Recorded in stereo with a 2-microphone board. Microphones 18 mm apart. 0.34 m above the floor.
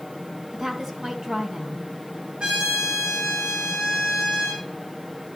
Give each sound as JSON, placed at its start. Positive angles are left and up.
{"t": 0.5, "sound": "a woman speaking", "side_deg": -35, "distance_m": 2.5}
{"t": 2.4, "sound": "a trumpet", "side_deg": -55, "distance_m": 7.5}